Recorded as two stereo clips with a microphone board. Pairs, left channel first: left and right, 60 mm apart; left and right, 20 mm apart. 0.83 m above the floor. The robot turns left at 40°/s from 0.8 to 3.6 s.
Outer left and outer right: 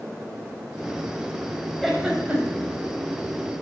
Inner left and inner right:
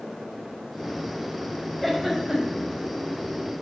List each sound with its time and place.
1.8 s a giggle: 5° left (ahead or behind), 4 m; by 2.7 s 30° right (ahead or behind), 4 m